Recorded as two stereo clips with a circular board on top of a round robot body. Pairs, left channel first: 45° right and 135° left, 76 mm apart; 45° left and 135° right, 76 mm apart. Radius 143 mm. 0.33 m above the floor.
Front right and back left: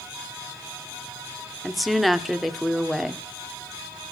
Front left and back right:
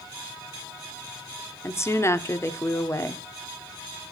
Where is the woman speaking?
45° left, 1.2 m.